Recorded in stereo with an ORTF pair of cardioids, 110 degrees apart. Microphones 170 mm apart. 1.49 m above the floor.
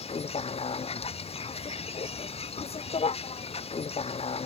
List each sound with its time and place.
0.0 s a vehicle: 35° left